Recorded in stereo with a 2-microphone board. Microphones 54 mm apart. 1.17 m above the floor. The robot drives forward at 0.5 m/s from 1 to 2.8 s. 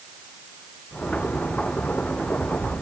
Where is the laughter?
I don't hear laughter.